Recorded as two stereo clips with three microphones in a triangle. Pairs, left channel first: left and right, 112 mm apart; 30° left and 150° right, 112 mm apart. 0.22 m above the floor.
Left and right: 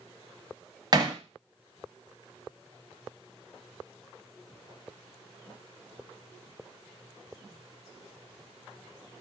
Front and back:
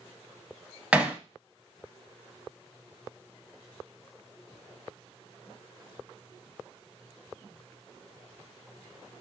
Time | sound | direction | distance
0.9 | hammering | 75° right | 0.7 m